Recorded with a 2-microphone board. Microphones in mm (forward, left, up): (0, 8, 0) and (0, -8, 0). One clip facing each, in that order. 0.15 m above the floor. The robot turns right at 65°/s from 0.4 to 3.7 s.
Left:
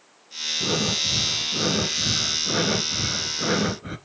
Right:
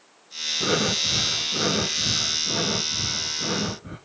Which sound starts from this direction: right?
Breathing, at 0.6 s.